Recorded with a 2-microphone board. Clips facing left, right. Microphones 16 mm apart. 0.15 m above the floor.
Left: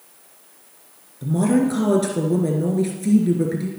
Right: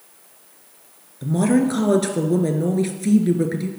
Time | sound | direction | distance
1.2 | a woman speaking | 20° right (ahead or behind) | 2.5 m